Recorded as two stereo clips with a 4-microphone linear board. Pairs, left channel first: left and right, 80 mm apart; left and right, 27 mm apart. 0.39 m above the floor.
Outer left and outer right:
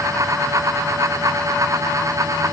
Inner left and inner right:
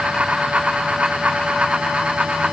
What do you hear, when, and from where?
Only background noise.